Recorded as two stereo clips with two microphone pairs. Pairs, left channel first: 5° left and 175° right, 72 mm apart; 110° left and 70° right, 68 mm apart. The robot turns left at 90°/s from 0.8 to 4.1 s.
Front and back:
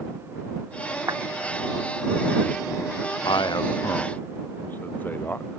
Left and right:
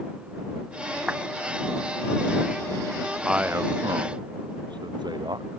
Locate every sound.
1.1 s a clap: 140° right; by 1.2 s 150° right
3.2 s a man speaking: 15° left; by 5.6 s 60° right